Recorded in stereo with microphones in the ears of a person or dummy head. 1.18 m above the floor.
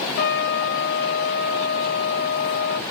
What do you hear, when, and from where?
0.2 s a trumpet: 70° left (ahead or behind), 1.9 m